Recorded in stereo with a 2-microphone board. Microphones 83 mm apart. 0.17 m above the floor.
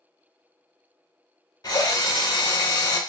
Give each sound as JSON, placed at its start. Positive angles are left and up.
{"t": 1.6, "sound": "a drill", "side_deg": 50, "distance_m": 0.9}